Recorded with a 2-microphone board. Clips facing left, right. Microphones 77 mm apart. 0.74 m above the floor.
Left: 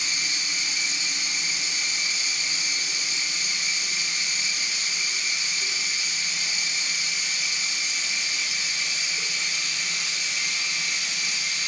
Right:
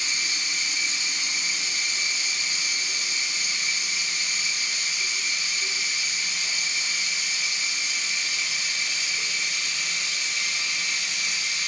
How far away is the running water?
About 1.2 m.